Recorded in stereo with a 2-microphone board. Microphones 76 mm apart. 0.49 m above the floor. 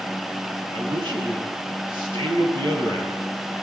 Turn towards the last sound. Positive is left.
turn(degrees=-85)